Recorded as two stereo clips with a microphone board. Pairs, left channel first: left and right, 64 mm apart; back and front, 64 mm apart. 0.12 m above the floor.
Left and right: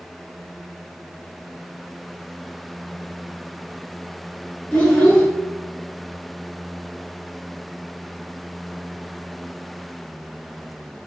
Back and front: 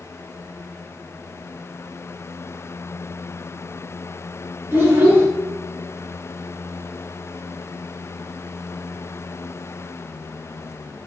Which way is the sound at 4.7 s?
25° left.